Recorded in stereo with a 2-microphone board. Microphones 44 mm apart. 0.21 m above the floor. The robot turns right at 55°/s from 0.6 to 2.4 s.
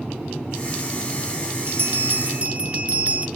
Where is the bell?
70° right, 1.0 m; by 3.3 s 30° right, 1.0 m.